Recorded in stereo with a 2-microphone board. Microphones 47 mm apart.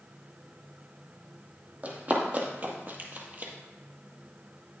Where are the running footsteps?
35° right (ahead or behind), 2.5 m.